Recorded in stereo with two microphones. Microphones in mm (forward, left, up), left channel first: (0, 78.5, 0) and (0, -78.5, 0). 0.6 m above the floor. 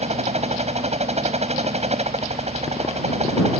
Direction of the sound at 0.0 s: 45° right (ahead or behind).